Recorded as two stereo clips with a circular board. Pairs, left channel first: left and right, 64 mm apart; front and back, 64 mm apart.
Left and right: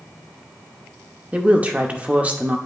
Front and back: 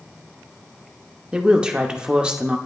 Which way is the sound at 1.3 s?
120° right.